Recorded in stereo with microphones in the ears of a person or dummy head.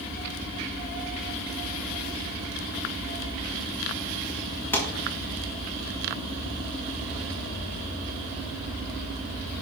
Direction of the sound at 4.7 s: 10° left (ahead or behind).